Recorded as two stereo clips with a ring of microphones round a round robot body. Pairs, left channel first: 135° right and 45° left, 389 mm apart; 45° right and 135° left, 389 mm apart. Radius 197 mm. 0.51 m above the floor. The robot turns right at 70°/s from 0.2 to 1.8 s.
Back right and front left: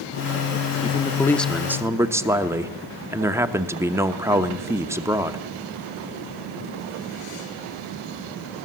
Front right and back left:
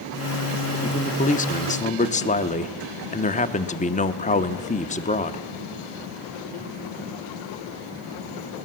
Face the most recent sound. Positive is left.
turn(degrees=-25)